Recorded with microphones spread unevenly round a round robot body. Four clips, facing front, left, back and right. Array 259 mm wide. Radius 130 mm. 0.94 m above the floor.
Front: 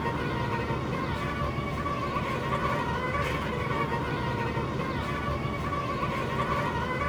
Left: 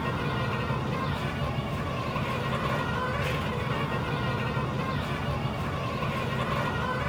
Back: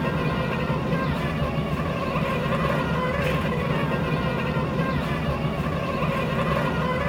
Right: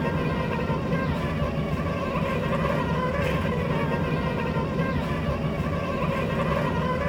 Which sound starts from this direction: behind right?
An insect, at 0.0 s.